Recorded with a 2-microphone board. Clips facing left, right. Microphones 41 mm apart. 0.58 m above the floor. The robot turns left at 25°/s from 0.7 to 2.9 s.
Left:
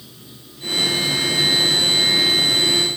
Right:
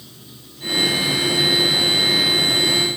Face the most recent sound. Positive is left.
turn(degrees=-50)